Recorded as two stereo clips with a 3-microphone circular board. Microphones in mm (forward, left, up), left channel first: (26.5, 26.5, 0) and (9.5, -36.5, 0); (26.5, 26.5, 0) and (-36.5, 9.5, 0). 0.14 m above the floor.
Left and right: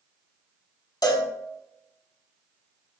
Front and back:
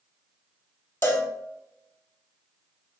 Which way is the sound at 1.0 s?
70° left.